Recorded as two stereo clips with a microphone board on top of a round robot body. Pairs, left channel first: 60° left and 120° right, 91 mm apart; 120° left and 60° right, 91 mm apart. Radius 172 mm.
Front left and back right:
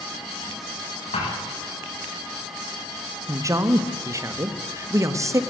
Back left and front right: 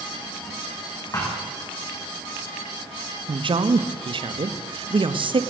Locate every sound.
1.1 s a thud: 65° left, 9 m
3.3 s a man speaking: 70° right, 1.7 m